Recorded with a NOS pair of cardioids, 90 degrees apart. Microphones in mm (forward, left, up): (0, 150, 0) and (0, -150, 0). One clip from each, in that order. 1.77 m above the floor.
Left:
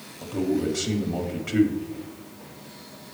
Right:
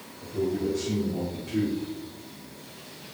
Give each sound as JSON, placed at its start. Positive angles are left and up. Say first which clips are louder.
{"t": 0.2, "sound": "a man speaking", "louder": "left 2 dB", "azimuth_deg": 65, "distance_m": 1.4}